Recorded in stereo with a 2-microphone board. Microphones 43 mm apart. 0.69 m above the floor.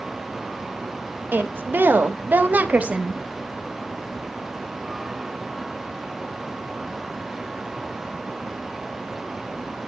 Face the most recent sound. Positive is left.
turn(degrees=-20)  # may be behind; listen again after turning